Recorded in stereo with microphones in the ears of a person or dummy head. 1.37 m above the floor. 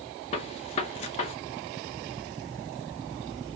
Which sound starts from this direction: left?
A gunshot, at 0.3 s.